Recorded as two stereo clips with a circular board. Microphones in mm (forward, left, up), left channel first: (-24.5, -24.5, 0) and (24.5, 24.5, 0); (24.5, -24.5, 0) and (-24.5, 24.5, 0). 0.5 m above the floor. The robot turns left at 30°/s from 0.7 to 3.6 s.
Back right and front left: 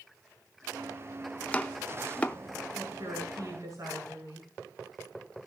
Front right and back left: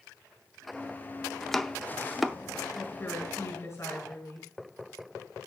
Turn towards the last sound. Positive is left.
turn(degrees=0)